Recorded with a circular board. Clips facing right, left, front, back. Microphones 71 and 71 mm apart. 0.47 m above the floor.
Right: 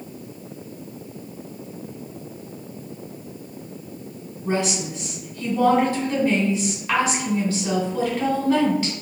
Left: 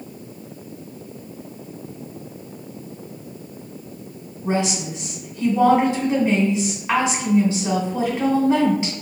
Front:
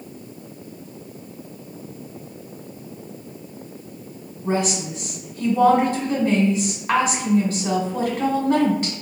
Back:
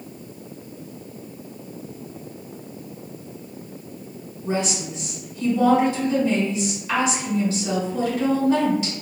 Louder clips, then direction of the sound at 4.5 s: Left 1 dB, front 2 dB; 25° left.